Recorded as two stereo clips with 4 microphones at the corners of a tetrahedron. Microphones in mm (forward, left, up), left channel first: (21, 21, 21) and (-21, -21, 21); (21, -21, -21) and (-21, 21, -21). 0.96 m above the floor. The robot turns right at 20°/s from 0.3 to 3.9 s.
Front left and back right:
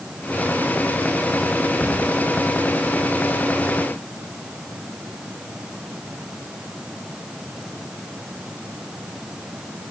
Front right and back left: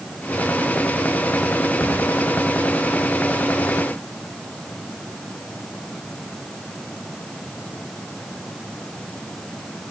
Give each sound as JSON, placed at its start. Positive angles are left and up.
{"t": 1.8, "sound": "a cupboard door", "azimuth_deg": -85, "distance_m": 2.5}